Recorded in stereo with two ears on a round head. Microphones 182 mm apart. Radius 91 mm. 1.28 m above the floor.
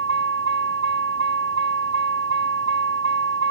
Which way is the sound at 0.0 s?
65° right (ahead or behind).